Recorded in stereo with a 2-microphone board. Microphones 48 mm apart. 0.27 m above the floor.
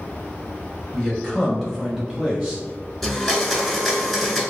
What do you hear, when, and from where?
0.9 s a man speaking: 15° left (ahead or behind), 1.2 m; by 2.6 s 5° right (ahead or behind), 1.4 m
3.0 s a blender: 5° left (ahead or behind), 1.0 m